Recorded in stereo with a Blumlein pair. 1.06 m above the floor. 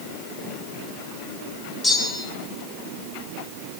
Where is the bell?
5° left, 1.2 m.